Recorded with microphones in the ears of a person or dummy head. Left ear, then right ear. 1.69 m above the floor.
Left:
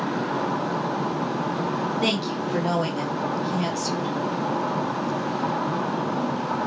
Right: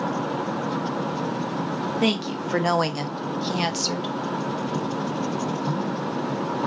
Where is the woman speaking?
15° right (ahead or behind), 0.6 m; by 4.1 s 60° right (ahead or behind), 1.0 m.